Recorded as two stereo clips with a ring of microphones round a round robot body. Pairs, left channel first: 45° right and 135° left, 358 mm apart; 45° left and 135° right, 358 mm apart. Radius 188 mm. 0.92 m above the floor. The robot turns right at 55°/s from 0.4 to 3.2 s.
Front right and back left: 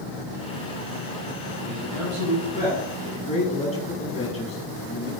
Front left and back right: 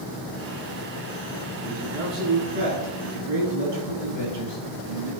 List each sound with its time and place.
1.6 s a man speaking: 155° left, 9.5 m; by 5.1 s 120° right, 9.5 m